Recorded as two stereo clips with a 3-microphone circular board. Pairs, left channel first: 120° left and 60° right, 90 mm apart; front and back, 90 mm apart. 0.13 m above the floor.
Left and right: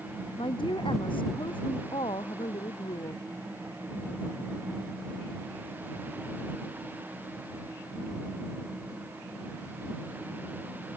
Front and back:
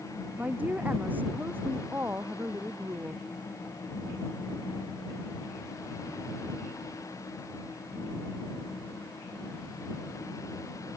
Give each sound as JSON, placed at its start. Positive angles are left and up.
{"t": 0.4, "sound": "a woman speaking", "azimuth_deg": 105}